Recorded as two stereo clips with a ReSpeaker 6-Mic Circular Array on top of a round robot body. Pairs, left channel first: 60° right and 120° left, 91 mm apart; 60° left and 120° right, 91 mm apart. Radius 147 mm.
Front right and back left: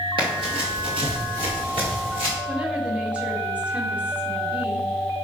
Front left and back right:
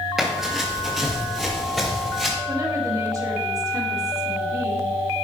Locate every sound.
0.2 s running footsteps: 150° left, 1.1 m
2.5 s a woman speaking: 165° right, 2.5 m